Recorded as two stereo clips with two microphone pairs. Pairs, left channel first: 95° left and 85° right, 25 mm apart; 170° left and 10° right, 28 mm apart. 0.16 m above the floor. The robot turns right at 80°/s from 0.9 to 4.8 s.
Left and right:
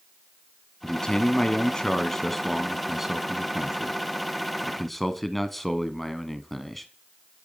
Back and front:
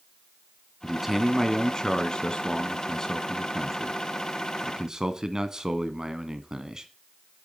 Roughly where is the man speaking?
Ahead left.